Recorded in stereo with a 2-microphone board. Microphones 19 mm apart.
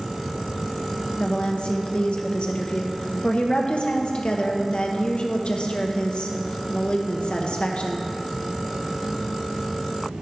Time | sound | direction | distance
1.2 | a woman speaking | 65° left (ahead or behind) | 0.8 m